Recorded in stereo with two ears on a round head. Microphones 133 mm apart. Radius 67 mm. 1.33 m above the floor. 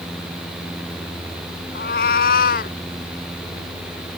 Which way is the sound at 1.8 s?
70° left (ahead or behind).